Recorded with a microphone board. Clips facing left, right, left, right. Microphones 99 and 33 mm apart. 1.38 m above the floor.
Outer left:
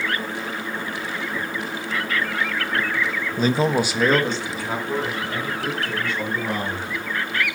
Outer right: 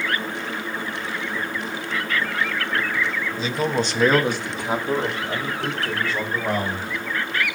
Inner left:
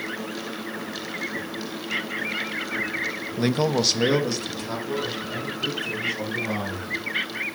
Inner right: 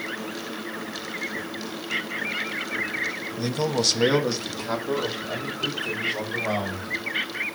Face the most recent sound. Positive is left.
turn(degrees=-35)  # may be behind; listen again after turning